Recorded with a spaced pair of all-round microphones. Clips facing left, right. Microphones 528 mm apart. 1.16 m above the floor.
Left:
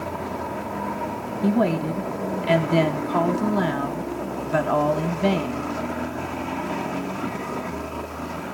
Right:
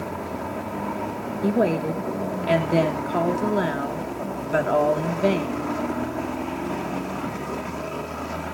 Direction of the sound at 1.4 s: 20° left (ahead or behind).